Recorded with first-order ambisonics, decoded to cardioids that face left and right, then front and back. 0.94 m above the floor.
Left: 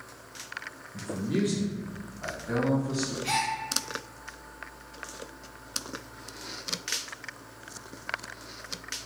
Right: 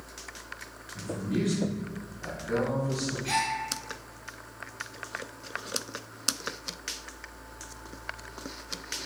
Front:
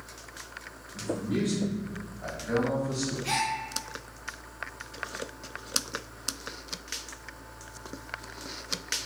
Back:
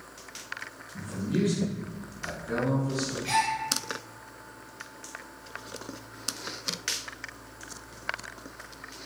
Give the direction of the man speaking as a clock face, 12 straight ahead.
9 o'clock.